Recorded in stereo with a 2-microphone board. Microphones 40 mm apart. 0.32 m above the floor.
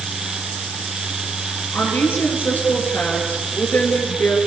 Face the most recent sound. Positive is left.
turn(degrees=60)  # may be behind; listen again after turning